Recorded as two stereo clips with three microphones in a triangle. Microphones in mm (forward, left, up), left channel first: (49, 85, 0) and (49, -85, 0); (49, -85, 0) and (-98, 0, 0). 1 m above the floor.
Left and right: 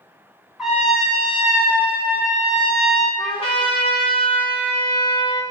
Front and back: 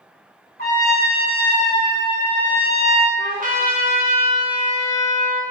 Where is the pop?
No pop in this recording.